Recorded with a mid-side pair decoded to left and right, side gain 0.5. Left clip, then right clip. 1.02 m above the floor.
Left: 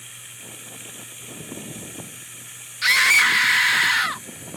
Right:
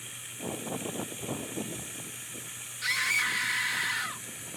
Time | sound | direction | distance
0.0 | running water | 20° left | ?
2.8 | a scream | 70° left | ?